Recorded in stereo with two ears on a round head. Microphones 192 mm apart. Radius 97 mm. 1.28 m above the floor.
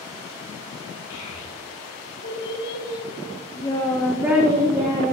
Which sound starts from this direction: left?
A child speaking, at 1.1 s.